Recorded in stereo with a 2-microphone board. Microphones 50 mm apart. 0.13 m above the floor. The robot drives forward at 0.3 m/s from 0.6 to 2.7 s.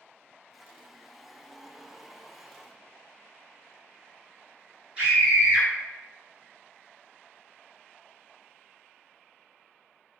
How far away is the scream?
About 2.0 m.